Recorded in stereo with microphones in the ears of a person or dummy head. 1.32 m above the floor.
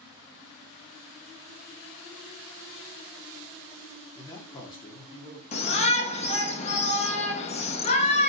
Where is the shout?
30° left (ahead or behind), 0.6 m.